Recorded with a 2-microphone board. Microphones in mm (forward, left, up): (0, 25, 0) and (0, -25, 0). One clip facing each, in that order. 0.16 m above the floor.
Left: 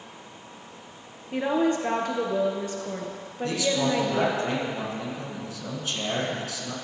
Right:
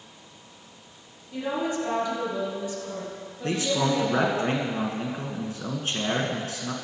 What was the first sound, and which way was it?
A woman speaking, 60° left (ahead or behind).